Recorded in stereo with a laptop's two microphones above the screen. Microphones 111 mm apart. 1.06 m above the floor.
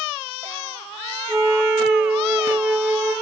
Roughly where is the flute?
Right.